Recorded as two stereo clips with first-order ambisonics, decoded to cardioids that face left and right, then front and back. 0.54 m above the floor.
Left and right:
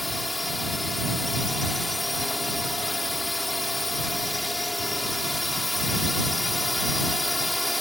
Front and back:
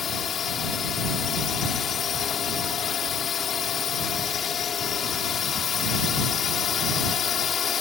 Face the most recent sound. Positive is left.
turn(degrees=10)